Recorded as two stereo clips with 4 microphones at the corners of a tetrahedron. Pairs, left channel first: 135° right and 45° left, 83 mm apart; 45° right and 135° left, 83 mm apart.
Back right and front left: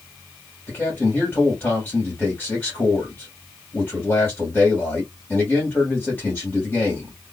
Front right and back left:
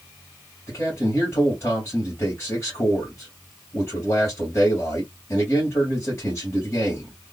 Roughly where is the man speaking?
Right.